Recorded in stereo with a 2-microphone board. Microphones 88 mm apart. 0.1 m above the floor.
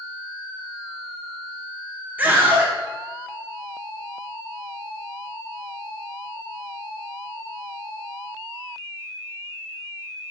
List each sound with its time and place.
2.2 s a scream: 20° right (ahead or behind), 1.3 m